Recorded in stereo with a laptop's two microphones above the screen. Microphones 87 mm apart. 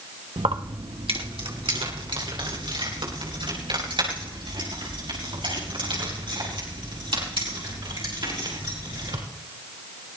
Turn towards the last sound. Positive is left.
turn(degrees=-70)  # may be behind; listen again after turning